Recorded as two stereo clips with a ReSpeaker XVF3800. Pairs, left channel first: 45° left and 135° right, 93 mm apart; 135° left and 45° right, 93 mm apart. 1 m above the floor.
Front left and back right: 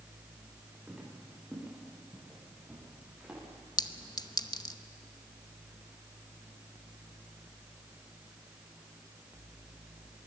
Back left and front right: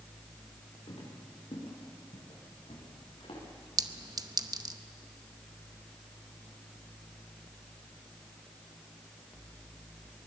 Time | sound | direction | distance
0.9 | footsteps | 140° left | 8 m
3.8 | a clink | straight ahead | 0.8 m